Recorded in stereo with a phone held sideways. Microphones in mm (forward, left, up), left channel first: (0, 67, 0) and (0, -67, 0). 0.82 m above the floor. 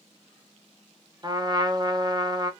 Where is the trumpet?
30° right (ahead or behind), 0.5 m.